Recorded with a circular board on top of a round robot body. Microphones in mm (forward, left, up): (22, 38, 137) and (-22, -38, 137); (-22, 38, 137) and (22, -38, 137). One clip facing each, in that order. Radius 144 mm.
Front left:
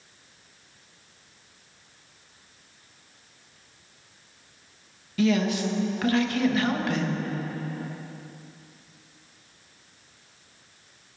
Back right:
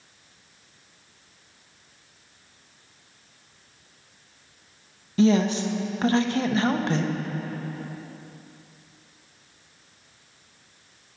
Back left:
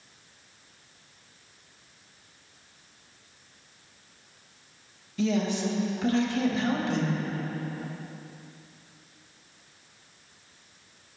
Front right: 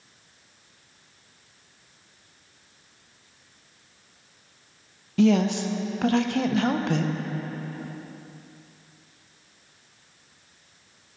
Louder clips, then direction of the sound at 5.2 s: Back right 3 dB, front right 6 dB; 60° right.